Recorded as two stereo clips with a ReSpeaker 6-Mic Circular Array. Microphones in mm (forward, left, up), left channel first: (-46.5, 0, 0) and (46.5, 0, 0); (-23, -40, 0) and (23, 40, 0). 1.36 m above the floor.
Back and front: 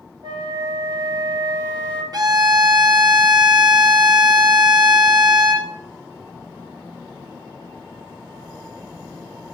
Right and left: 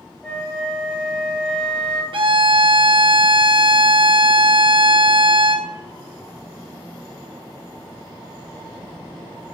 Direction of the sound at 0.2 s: 40° right.